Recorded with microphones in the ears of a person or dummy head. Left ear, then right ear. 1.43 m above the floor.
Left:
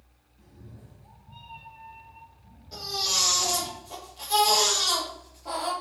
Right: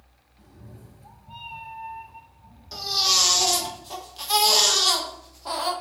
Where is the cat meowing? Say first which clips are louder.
Right 3 dB; 25° right (ahead or behind), 0.8 m; by 3.7 s 40° right (ahead or behind), 1.8 m.